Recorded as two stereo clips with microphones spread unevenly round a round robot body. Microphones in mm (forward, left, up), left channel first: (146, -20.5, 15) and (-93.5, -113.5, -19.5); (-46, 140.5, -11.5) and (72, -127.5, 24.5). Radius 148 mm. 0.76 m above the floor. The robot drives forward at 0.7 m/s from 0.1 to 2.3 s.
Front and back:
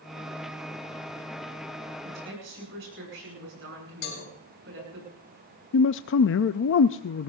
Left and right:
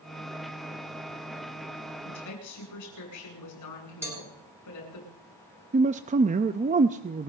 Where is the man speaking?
Straight ahead, 0.5 m.